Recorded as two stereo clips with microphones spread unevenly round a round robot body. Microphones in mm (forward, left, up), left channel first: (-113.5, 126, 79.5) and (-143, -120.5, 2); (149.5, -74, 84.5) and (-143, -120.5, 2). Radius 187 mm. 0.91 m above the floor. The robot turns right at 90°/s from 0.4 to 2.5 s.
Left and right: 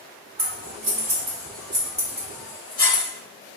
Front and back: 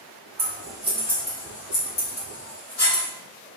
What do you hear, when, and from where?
0.4 s scissors: 140° right, 1.3 m; by 3.0 s 50° left, 1.3 m